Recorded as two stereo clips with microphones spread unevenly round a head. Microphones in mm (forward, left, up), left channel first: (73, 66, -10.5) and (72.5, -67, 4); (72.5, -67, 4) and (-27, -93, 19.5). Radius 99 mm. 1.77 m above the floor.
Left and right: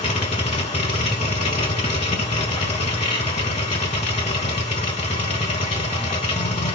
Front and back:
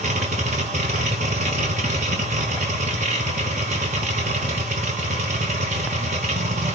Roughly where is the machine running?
Behind left.